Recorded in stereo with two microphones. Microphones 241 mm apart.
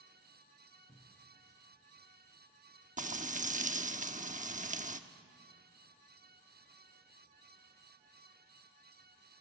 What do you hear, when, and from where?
0.9 s a cupboard door: 35° left (ahead or behind), 3.5 m
3.0 s frying: 30° right (ahead or behind), 0.9 m